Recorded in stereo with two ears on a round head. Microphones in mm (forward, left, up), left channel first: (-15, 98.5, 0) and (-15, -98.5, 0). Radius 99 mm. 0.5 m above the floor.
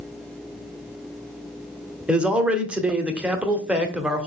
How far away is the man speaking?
About 1.0 m.